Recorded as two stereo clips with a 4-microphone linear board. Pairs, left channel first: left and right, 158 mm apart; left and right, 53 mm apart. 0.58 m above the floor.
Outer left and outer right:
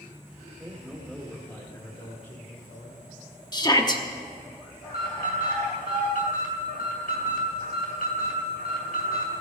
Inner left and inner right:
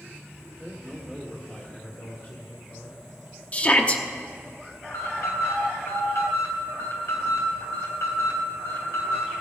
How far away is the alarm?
About 3 m.